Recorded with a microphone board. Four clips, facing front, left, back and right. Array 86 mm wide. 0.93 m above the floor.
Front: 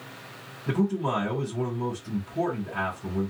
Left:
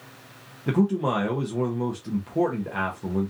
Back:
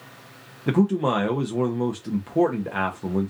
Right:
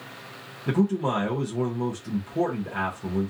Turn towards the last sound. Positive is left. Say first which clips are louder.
# left 1 dB, back 5 dB
turn(degrees=165)